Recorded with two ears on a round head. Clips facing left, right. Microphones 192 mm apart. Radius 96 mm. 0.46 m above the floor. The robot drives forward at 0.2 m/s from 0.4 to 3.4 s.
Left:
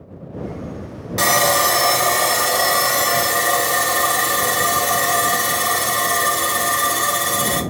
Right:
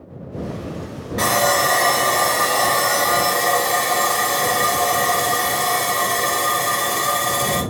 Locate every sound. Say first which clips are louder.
1.2 s sawing: even; 55° left (ahead or behind), 1.0 m; by 7.6 s 40° left (ahead or behind), 1.3 m